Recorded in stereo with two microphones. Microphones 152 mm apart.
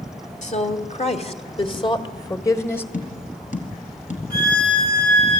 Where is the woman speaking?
55° left (ahead or behind), 2.5 m; by 2.8 s 10° left (ahead or behind), 1.5 m.